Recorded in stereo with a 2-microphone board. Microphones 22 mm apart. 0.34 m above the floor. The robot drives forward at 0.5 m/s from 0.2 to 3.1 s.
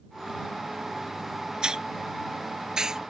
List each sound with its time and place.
1.6 s a hiss: 35° right (ahead or behind); by 3.0 s 30° right (ahead or behind)